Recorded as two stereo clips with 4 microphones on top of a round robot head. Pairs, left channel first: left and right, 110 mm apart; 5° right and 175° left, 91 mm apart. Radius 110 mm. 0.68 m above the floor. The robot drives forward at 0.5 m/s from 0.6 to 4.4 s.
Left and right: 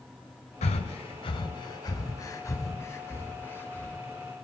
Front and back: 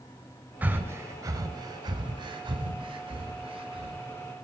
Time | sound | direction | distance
0.6 | breathing | 105° left | 0.8 m